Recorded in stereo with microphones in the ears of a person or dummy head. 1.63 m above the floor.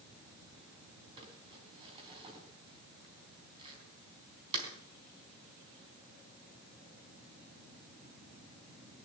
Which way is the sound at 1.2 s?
25° right (ahead or behind).